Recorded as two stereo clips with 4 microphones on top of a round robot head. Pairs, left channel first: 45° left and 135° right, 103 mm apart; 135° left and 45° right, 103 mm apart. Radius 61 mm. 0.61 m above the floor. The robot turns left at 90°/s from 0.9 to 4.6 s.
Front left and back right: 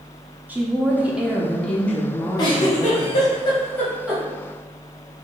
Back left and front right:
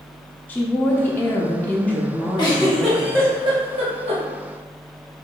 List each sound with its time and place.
0.5 s a woman speaking: straight behind, 0.6 m; by 3.3 s 40° right, 0.6 m
2.4 s a giggle: 95° left, 1.3 m; by 4.2 s 70° right, 1.3 m